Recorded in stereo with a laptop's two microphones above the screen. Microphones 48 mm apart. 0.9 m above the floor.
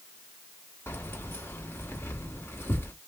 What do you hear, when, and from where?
0.9 s keys jangling: 60° left (ahead or behind), 1.3 m